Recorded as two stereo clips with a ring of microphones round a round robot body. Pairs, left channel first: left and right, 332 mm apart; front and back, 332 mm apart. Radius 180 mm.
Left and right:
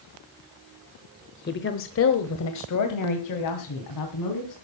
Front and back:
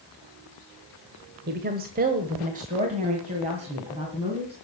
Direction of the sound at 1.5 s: 135° left.